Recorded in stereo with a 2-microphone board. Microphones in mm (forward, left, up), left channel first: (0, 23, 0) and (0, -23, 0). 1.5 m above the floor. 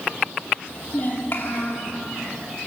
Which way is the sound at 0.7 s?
35° left (ahead or behind).